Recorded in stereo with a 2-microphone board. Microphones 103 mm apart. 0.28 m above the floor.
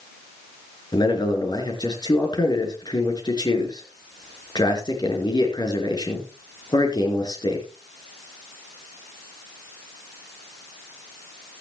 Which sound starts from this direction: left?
A man speaking, at 0.9 s.